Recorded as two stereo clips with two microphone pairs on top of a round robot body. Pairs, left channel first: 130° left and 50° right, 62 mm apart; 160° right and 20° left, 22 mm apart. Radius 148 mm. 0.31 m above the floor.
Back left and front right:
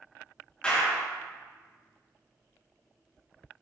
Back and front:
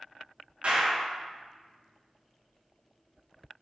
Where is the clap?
55° left, 5 m.